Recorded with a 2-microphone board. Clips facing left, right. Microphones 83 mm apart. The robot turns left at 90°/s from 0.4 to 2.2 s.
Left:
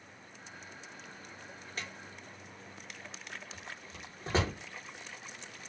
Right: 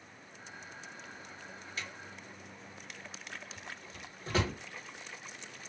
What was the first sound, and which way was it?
A drawer, 40° left (ahead or behind).